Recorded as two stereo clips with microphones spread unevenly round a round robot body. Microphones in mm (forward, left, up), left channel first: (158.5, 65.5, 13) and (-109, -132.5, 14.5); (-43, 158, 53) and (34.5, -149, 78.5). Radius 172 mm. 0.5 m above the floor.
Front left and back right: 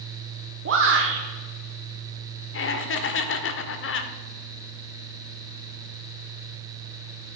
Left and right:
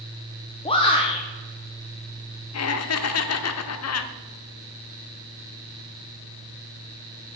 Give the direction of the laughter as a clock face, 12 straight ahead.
9 o'clock.